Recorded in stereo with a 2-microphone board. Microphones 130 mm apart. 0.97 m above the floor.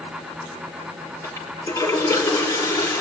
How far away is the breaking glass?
I don't hear breaking glass.